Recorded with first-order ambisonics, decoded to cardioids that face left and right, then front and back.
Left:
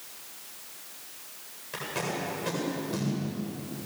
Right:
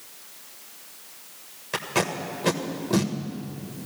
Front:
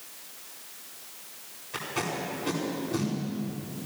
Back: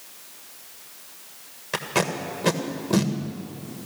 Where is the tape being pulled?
145° right, 1.6 m.